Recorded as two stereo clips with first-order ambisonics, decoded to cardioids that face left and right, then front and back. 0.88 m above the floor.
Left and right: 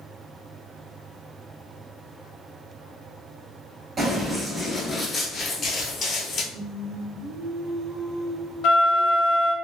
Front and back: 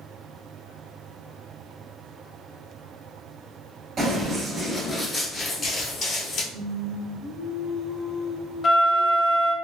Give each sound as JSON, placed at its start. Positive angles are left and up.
{"t": 4.0, "sound": "running footsteps", "azimuth_deg": -150, "distance_m": 0.9}
{"t": 6.5, "sound": "singing", "azimuth_deg": -35, "distance_m": 0.6}
{"t": 8.6, "sound": "a flute", "azimuth_deg": 60, "distance_m": 0.5}